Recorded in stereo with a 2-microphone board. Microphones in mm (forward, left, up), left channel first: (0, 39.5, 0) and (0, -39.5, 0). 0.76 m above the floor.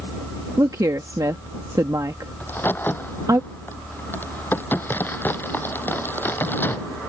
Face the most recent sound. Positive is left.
turn(degrees=25)  # may be behind; listen again after turning